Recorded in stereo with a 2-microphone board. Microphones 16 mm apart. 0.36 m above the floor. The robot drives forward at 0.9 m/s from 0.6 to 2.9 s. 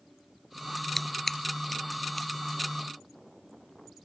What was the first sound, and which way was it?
Scissors, 10° left (ahead or behind).